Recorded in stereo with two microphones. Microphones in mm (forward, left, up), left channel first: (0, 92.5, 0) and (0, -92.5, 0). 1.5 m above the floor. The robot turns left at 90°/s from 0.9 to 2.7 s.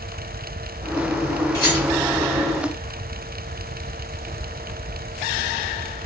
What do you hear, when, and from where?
1.5 s a rattle: 20° left (ahead or behind), 1.4 m; by 1.9 s 30° left (ahead or behind), 1.4 m